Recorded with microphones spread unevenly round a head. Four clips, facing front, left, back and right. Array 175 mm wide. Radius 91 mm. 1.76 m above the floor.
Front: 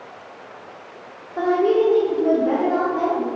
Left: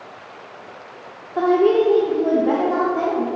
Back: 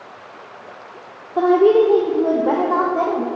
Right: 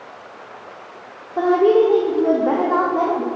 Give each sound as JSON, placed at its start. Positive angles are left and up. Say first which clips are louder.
{"t": 1.4, "sound": "a woman speaking", "louder": "right 1 dB, back 5 dB", "azimuth_deg": 165, "distance_m": 1.4}